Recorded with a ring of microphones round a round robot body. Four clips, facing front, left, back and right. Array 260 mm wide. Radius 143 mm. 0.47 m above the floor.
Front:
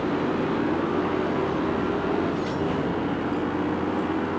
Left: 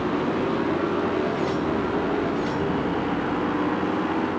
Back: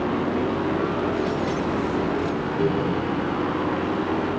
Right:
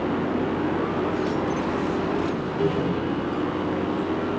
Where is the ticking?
No ticking in this recording.